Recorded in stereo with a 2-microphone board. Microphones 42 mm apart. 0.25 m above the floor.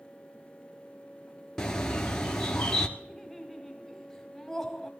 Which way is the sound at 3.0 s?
10° left (ahead or behind).